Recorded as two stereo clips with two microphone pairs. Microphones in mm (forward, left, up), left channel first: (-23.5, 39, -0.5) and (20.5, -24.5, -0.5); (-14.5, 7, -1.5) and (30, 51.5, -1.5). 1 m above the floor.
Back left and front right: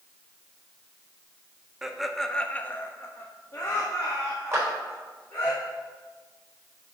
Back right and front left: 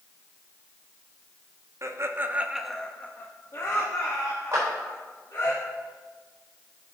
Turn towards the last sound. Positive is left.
turn(degrees=0)